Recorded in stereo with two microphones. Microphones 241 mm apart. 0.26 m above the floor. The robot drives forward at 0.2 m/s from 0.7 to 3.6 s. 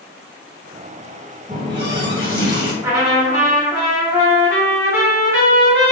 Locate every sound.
1.5 s a running tap: 25° right (ahead or behind), 1.2 m
2.8 s a trumpet: 15° right (ahead or behind), 1.6 m